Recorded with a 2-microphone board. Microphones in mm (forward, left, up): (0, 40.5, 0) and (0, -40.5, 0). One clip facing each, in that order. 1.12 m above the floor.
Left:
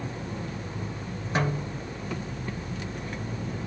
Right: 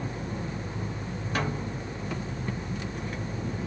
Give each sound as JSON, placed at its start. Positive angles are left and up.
{"t": 1.4, "sound": "a snare drum", "side_deg": 20, "distance_m": 0.6}